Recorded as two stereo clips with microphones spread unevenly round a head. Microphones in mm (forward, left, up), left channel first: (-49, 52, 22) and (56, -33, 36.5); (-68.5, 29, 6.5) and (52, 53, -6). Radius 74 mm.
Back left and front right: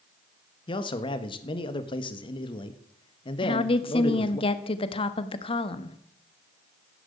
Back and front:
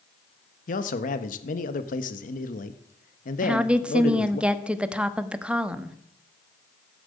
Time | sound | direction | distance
0.7 | a man speaking | 170° right | 1.3 m
3.4 | a woman speaking | 90° left | 1.3 m